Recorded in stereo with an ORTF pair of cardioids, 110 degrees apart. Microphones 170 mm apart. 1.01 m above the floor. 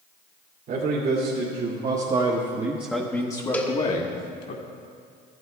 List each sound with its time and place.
0.7 s a man speaking: 65° right, 2.5 m; by 4.5 s 60° left, 2.0 m
3.5 s a cowbell: 10° left, 1.2 m